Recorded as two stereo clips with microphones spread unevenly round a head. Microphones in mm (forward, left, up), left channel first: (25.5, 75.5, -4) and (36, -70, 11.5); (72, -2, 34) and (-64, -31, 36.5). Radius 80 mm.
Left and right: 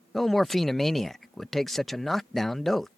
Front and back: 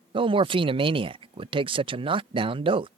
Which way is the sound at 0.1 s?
175° left.